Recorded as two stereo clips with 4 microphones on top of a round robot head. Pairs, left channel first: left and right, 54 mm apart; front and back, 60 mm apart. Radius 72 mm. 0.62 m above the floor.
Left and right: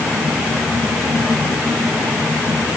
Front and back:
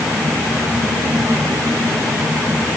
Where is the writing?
I don't hear writing.